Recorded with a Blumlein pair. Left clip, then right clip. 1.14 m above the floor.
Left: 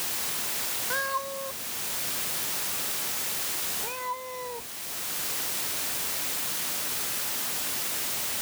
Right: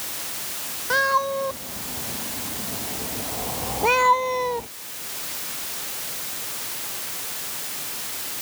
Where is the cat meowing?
25° right; by 4.7 s 65° right.